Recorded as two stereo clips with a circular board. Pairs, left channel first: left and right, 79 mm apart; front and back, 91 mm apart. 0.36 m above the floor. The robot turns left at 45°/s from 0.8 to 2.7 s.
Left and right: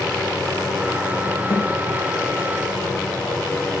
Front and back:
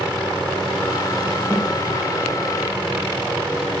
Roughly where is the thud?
Left.